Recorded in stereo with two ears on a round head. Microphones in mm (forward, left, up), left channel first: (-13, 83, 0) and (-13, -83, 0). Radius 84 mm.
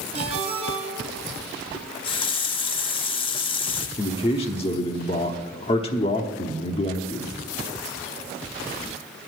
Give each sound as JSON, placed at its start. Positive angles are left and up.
{"t": 0.1, "sound": "a ringtone", "side_deg": -30, "distance_m": 3.0}
{"t": 1.7, "sound": "a running tap", "side_deg": 30, "distance_m": 0.5}
{"t": 4.0, "sound": "a man speaking", "side_deg": 30, "distance_m": 0.9}